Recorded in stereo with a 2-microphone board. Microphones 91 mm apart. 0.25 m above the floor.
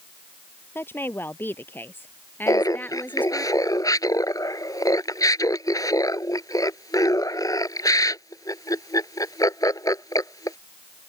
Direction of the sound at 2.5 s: 40° left (ahead or behind).